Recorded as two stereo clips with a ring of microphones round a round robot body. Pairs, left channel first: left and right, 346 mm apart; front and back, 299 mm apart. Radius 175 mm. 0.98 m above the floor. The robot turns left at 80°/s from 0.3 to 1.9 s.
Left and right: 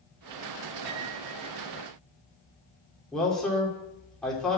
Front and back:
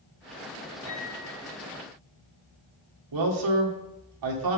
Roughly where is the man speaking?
Behind.